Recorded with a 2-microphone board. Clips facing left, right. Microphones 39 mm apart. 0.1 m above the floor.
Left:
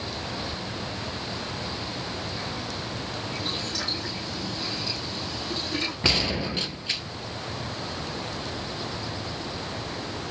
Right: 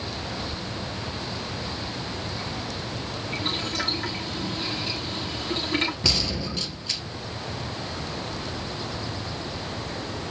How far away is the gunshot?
About 0.9 m.